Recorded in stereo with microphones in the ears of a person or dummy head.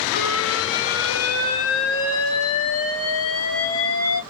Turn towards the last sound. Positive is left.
turn(degrees=70)  # may be behind; listen again after turning